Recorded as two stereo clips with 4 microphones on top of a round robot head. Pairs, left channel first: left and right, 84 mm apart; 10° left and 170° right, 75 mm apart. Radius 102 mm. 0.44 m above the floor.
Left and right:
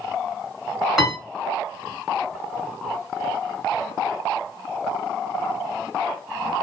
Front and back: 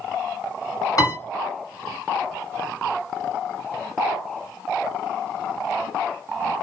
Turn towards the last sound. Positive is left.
turn(degrees=-5)